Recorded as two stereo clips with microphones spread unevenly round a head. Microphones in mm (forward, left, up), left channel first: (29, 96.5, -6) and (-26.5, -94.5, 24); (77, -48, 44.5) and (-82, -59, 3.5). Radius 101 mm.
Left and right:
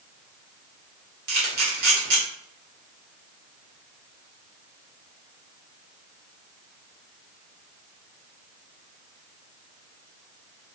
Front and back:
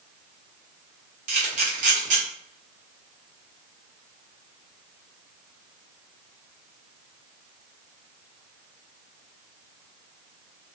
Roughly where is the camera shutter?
Behind right.